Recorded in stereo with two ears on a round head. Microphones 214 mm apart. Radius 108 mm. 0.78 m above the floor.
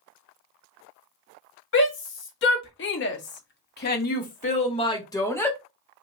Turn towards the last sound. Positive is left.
turn(degrees=5)  # may be behind; listen again after turning